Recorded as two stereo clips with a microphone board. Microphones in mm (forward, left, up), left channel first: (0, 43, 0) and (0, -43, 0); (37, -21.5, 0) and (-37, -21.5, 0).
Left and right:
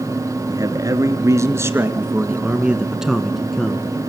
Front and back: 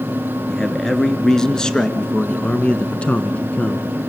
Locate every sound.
0.5 s a man speaking: 85° right, 2 m; by 3.9 s 30° left, 1.6 m